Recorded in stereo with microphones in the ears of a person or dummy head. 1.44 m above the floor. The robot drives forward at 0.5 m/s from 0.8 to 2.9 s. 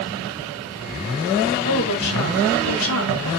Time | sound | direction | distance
1.6 | a woman speaking | 60° left (ahead or behind) | 2 m